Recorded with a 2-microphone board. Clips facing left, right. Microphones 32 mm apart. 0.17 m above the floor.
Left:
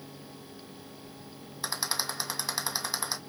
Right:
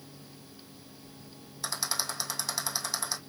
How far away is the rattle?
About 1.8 m.